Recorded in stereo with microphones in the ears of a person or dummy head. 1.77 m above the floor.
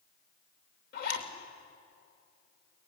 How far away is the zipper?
About 3 m.